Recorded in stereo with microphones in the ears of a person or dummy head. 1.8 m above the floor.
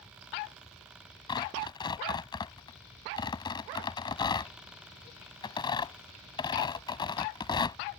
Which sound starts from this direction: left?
Tearing paper, at 1.3 s.